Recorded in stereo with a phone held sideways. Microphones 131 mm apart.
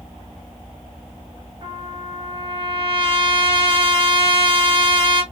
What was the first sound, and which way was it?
A trumpet, 40° right (ahead or behind).